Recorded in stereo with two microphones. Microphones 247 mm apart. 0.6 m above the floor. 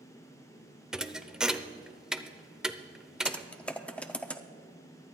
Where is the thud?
5° right (ahead or behind), 0.5 m.